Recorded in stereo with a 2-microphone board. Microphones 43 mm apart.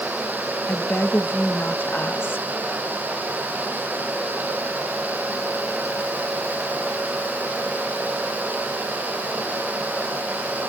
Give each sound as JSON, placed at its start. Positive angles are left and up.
{"t": 0.7, "sound": "a woman speaking", "side_deg": 55, "distance_m": 1.4}